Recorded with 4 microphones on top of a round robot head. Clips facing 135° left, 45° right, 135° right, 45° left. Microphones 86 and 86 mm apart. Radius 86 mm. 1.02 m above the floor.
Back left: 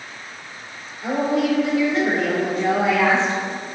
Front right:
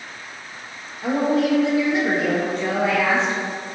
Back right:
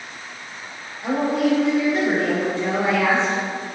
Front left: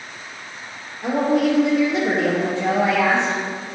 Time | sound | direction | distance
1.0 | a woman speaking | straight ahead | 1.3 m